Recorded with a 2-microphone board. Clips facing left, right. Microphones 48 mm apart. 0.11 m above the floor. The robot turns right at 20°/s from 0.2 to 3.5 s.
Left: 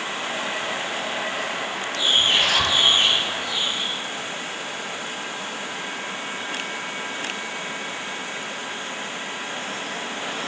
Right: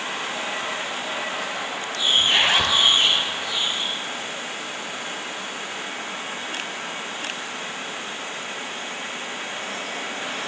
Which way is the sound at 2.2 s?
30° right (ahead or behind).